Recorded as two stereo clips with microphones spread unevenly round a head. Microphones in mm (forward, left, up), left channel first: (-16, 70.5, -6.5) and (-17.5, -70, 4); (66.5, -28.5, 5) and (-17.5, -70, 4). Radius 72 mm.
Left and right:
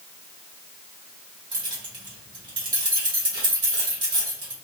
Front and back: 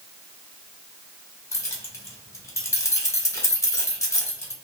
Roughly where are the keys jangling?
Ahead right.